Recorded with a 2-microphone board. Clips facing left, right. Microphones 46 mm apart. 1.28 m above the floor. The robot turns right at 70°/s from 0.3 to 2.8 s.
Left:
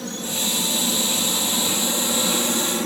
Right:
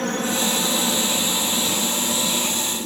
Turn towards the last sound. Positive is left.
turn(degrees=60)  # may be behind; listen again after turning